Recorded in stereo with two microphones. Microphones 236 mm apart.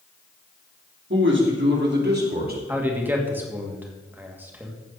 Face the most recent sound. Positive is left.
turn(degrees=-10)  # may be behind; listen again after turning